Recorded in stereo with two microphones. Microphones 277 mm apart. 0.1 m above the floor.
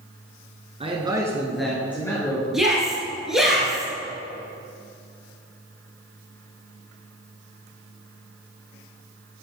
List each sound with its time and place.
0.8 s a man speaking: 20° right (ahead or behind), 1.1 m; by 2.4 s 15° left (ahead or behind), 1.7 m
2.5 s a shout: centre (ahead or behind), 1.9 m